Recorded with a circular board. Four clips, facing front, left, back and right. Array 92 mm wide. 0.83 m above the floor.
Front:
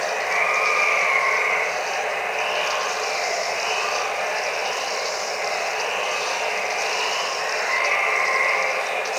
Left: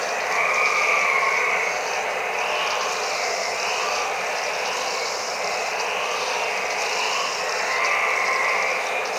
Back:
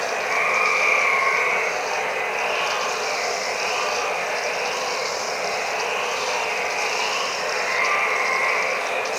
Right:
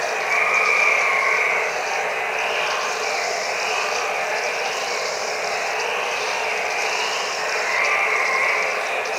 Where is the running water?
90° right, 3.5 m.